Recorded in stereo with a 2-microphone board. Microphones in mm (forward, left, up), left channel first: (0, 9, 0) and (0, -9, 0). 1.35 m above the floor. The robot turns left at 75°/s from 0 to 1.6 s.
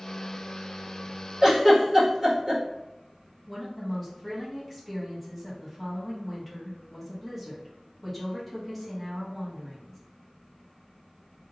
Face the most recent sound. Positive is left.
turn(degrees=10)  # may be behind; listen again after turning